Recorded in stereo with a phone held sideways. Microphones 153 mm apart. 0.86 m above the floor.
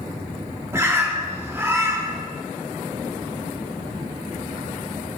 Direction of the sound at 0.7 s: 15° right (ahead or behind).